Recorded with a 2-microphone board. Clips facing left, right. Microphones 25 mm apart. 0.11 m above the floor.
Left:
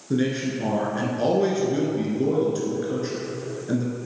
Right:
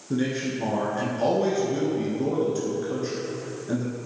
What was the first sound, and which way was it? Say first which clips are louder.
A man speaking: left 2 dB; 15° left (ahead or behind).